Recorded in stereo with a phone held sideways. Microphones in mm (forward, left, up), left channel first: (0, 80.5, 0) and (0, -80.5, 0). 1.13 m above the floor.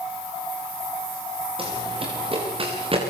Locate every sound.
1.6 s running footsteps: 35° right (ahead or behind), 10 m